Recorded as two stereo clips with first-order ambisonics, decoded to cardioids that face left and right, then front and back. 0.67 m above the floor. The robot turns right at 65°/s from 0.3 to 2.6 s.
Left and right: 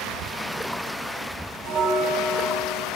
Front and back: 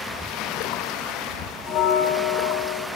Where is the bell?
50° right, 1.4 m; by 2.9 s 10° left, 1.4 m.